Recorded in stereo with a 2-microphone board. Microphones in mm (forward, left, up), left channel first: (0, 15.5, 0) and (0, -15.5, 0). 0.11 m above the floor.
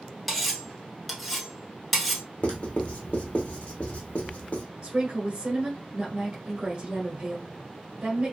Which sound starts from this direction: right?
A woman speaking, at 4.8 s.